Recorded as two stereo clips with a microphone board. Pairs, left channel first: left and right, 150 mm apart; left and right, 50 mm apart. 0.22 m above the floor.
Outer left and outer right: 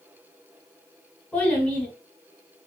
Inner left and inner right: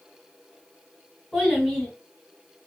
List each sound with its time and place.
1.3 s a child speaking: 10° left (ahead or behind), 1.2 m